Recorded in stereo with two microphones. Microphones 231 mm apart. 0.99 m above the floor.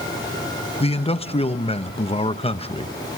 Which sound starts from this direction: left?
A man speaking, at 0.8 s.